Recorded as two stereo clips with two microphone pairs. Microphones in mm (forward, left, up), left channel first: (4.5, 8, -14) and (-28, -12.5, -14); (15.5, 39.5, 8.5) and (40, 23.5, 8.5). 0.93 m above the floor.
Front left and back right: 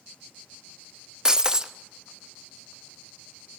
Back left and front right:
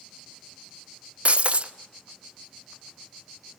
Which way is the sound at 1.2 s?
75° right.